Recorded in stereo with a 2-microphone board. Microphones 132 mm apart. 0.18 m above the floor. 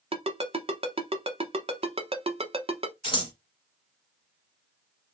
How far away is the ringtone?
About 0.8 m.